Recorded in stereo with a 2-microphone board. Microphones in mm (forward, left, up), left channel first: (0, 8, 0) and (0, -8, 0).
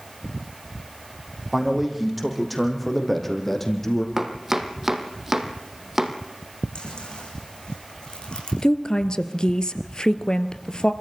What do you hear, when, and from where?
1.5 s a man speaking: 5° right (ahead or behind), 6.5 m; by 4.1 s 25° left (ahead or behind), 5.5 m
4.2 s chopping: 20° right (ahead or behind), 2.5 m
6.8 s chewing: 70° left (ahead or behind), 8 m
8.6 s a woman speaking: 55° left (ahead or behind), 1.9 m